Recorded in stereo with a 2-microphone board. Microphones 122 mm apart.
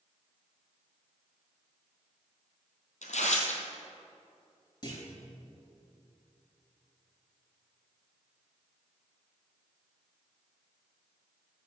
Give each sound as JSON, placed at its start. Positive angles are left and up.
{"t": 3.0, "sound": "tearing paper", "side_deg": 70, "distance_m": 1.9}
{"t": 4.8, "sound": "a clunk", "side_deg": 35, "distance_m": 4.5}